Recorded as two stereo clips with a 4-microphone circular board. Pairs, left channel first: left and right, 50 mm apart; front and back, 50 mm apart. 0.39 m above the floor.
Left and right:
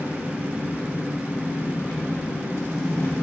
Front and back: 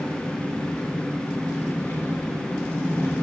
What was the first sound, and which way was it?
An engine running, 50° left.